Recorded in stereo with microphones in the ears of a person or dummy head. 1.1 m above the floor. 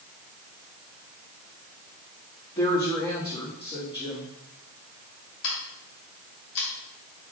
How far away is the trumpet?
No trumpet in this recording.